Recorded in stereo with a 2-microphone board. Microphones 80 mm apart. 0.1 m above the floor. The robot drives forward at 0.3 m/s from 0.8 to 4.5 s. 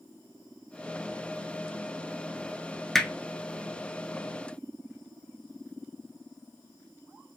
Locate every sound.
3.0 s hammering: 5° left (ahead or behind), 0.7 m